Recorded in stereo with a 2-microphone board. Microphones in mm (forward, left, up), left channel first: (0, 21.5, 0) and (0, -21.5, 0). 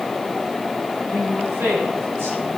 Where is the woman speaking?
80° right, 4 m.